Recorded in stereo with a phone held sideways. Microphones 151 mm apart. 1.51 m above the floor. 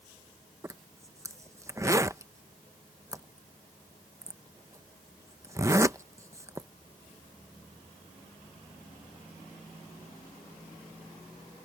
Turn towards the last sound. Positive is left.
turn(degrees=-20)  # may be behind; listen again after turning